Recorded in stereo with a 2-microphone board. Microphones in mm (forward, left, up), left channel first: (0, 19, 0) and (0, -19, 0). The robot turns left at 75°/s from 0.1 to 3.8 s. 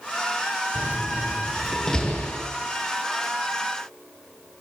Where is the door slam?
70° right (ahead or behind), 6 m; by 2.4 s 50° left (ahead or behind), 6 m.